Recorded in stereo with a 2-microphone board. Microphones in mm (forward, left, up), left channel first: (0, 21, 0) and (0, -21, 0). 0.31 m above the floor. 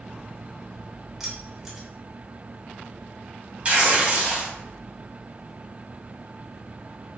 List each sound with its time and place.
1.2 s keys jangling: 10° right (ahead or behind), 0.7 m
3.6 s tearing paper: 35° right (ahead or behind), 0.7 m